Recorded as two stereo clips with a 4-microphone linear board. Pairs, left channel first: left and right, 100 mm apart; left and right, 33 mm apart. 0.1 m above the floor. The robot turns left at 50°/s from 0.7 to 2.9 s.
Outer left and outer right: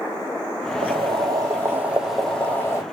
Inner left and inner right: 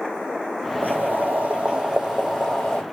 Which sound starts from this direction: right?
Boiling, at 0.8 s.